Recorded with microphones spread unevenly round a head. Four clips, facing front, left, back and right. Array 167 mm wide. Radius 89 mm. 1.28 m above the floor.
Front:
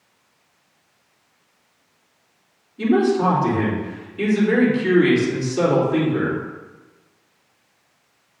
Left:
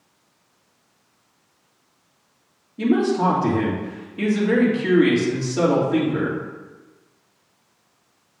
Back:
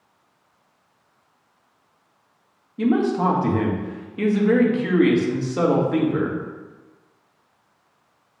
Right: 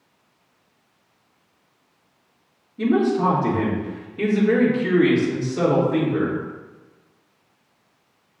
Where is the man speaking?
150° left, 2 m.